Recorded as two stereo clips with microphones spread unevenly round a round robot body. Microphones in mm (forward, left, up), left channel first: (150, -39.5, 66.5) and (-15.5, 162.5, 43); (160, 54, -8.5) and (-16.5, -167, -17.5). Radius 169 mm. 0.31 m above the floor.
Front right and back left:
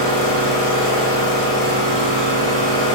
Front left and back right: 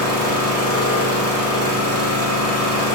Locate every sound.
0.0 s an engine running: 100° right, 0.9 m